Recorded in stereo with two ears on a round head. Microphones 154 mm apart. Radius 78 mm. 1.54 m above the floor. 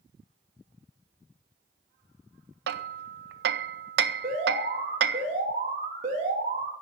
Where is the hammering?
60° right (ahead or behind), 0.6 m.